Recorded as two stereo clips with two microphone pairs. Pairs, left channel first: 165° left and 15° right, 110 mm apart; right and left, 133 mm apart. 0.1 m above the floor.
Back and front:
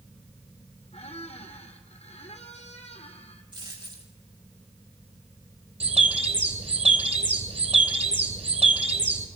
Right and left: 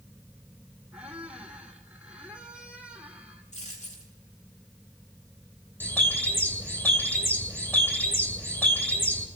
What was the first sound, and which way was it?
A squeak, 170° left.